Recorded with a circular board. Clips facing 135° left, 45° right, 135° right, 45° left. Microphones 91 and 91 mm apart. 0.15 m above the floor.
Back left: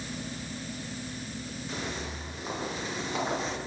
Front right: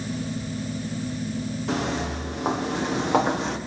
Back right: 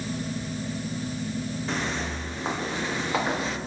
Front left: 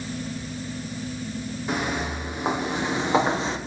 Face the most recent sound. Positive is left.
turn(degrees=-20)